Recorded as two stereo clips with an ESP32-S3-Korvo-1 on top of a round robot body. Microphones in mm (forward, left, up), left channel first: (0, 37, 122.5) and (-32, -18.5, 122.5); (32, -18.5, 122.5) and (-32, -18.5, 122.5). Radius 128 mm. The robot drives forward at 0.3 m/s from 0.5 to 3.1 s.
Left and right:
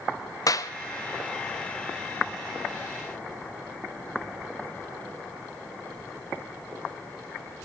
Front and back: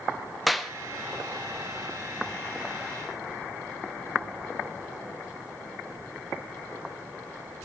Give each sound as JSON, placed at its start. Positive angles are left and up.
{"t": 0.5, "sound": "a clap", "azimuth_deg": 90, "distance_m": 1.3}